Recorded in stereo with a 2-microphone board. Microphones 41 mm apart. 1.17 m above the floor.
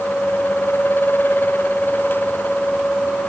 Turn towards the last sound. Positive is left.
No sound to turn to.